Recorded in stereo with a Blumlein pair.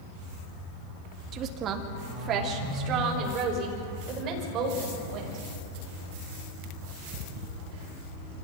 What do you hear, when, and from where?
1.3 s a woman speaking: 30° right, 2 m; by 5.4 s 35° right, 8 m